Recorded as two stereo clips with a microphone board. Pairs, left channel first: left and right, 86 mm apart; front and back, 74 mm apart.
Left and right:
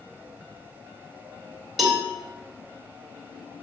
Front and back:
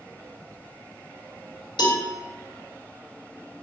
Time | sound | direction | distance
1.8 | a cowbell | straight ahead | 2 m